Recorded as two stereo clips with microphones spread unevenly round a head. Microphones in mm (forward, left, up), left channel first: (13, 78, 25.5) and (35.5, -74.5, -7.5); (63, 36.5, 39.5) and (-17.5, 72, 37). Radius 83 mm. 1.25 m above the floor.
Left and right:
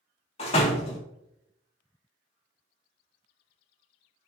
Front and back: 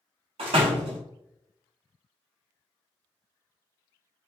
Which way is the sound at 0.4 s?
150° left.